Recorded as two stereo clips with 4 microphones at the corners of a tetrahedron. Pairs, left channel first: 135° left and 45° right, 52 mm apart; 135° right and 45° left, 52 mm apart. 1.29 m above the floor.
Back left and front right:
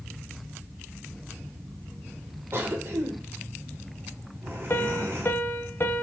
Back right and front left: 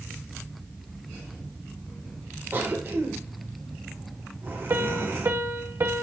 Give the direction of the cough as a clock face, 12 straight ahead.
12 o'clock.